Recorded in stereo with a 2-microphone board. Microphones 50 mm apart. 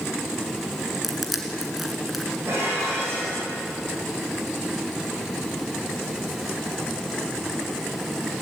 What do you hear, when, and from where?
1.0 s crushing: 5° right (ahead or behind), 2.5 m
2.5 s dishes clattering: 60° right (ahead or behind), 6.5 m